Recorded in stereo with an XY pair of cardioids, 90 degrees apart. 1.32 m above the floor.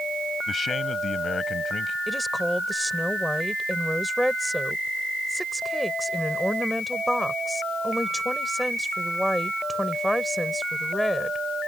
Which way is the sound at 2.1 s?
5° left.